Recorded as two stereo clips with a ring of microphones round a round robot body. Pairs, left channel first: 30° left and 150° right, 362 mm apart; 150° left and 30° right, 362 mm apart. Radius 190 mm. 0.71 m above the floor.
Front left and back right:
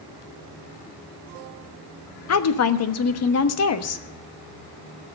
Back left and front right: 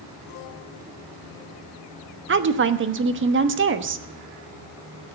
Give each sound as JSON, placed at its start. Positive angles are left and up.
{"t": 2.3, "sound": "a woman speaking", "azimuth_deg": 10, "distance_m": 1.2}